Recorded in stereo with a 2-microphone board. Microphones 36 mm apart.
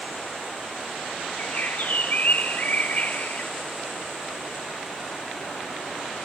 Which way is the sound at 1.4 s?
45° left (ahead or behind).